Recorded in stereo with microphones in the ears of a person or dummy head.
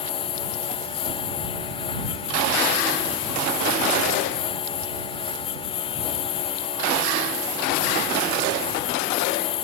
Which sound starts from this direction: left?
A lawn mower, at 0.0 s.